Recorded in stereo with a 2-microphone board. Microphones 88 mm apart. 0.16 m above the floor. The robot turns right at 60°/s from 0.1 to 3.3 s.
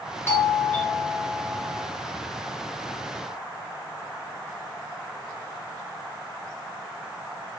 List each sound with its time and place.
0.3 s a doorbell: 25° left (ahead or behind), 1.6 m; by 1.9 s 10° right (ahead or behind), 1.6 m